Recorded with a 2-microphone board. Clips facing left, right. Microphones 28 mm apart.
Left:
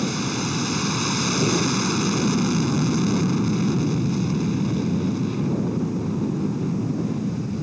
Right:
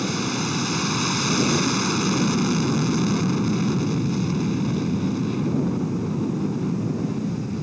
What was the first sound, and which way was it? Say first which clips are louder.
An aircraft: even; 10° right (ahead or behind).